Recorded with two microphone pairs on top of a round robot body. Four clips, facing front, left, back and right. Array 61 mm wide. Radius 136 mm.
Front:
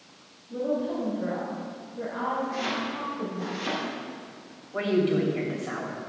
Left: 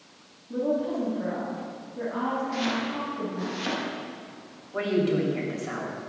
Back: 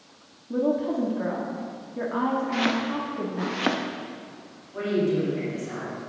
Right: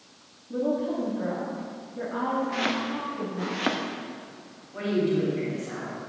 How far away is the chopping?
About 1.0 m.